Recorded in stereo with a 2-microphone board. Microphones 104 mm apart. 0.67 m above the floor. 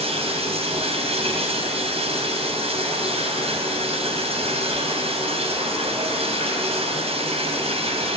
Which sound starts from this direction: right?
Running water, at 0.0 s.